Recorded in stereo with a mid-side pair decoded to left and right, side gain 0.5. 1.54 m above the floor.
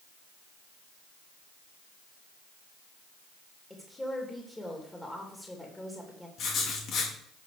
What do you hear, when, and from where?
3.7 s a woman speaking: 15° left, 2.5 m
6.4 s writing: 60° left, 2.5 m